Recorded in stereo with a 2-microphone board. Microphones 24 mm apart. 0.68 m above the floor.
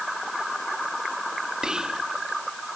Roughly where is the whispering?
Right.